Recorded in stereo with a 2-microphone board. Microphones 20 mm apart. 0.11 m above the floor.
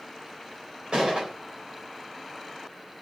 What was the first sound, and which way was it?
A gunshot, 60° right (ahead or behind).